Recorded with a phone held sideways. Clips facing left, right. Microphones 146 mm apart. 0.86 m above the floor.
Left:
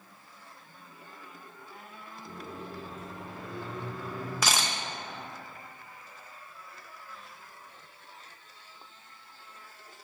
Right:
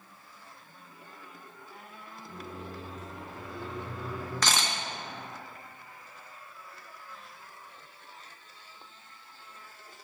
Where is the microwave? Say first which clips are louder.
Even; 50° left (ahead or behind), 1.6 m.